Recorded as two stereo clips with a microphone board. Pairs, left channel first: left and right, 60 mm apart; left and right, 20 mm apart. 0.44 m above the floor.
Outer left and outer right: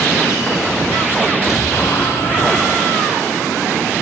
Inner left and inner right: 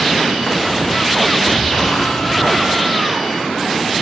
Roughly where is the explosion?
Left.